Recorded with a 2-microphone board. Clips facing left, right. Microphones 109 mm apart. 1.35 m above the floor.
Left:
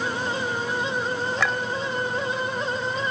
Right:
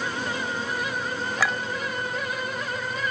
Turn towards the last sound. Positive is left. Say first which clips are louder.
# right 1 dB
turn(degrees=-5)  # may be behind; listen again after turning